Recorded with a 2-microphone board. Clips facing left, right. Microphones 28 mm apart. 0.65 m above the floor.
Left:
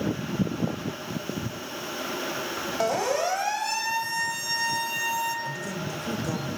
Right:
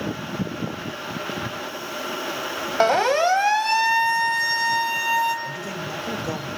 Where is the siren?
45° right (ahead or behind), 2.5 m; by 5.3 s 40° right (ahead or behind), 5 m.